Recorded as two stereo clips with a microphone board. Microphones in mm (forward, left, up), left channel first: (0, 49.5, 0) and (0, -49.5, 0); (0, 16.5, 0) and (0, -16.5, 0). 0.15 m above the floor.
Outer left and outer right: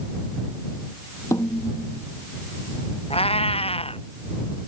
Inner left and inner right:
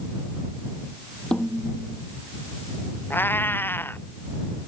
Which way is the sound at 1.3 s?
30° left (ahead or behind).